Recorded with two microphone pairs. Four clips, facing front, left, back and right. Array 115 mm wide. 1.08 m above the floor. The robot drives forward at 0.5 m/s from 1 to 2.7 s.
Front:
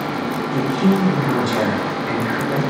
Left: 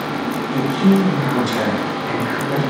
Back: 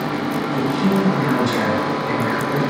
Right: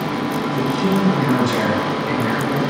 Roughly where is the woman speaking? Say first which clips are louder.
Left 5 dB, front 2 dB; ahead left.